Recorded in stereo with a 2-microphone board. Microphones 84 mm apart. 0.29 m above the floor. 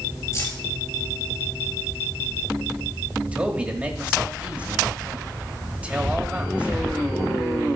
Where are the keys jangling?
45° left (ahead or behind), 4.5 m.